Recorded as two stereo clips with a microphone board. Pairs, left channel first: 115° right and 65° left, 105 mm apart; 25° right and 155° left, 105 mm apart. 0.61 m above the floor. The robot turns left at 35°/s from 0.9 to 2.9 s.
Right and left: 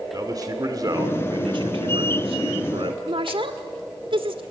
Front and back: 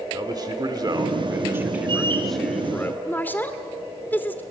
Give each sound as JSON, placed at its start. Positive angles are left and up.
{"t": 0.1, "sound": "a man speaking", "azimuth_deg": 115, "distance_m": 1.9}
{"t": 3.1, "sound": "a woman speaking", "azimuth_deg": 45, "distance_m": 1.7}